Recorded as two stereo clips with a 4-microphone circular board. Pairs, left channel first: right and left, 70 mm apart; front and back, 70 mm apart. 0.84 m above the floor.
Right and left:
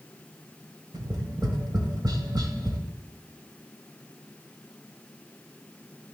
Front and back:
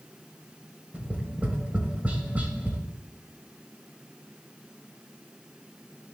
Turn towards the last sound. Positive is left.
turn(degrees=110)